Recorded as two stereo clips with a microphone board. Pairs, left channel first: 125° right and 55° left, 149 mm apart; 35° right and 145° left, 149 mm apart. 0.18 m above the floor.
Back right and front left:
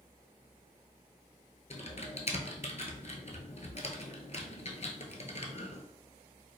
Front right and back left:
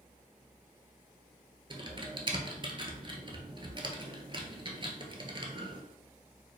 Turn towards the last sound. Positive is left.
turn(degrees=-160)